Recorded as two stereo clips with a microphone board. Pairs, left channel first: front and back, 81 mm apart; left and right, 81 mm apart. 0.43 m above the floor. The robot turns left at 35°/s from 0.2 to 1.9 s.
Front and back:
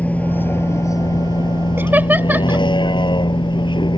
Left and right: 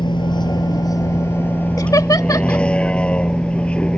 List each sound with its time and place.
0.0 s a vehicle: 70° left; by 4.0 s 10° left
1.8 s laughter: 120° left